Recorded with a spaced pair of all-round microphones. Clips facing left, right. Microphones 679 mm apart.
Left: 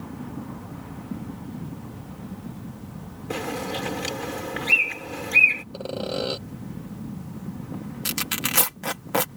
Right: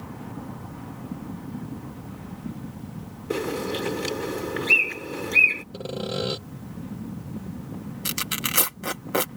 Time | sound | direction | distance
3.3 | a bird | 20° left (ahead or behind) | ?
5.7 | sawing | 45° right (ahead or behind) | ?
8.1 | tearing paper | 25° left (ahead or behind) | ?